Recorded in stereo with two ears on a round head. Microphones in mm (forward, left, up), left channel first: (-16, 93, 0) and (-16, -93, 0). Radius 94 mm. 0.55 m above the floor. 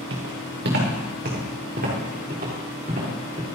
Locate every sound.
0.1 s footsteps: 55° right (ahead or behind), 4 m; by 3.4 s 30° right (ahead or behind), 5.5 m